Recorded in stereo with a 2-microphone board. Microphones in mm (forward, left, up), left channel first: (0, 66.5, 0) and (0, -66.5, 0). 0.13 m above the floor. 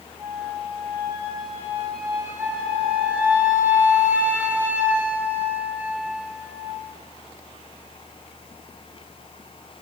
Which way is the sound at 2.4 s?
10° right (ahead or behind).